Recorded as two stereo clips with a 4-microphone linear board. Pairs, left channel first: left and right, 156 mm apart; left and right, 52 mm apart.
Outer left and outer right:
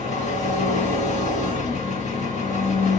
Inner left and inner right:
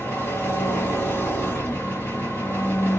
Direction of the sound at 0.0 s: 50° left (ahead or behind).